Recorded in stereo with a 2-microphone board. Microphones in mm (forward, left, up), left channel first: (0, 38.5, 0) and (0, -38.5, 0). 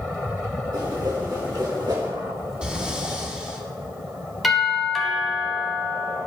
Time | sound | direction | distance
0.7 | a whoosh | 70° right (ahead or behind) | 4 m
2.6 | breathing | 15° right (ahead or behind) | 1.6 m
4.4 | a doorbell | centre (ahead or behind) | 2.5 m